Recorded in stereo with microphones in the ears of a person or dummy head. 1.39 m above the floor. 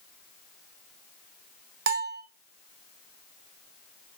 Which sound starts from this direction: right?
A bell, at 1.9 s.